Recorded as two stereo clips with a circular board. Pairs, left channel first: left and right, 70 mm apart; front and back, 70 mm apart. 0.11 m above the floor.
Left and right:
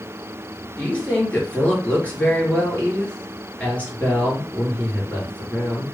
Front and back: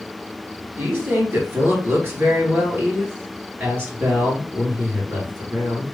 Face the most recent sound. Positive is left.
turn(degrees=150)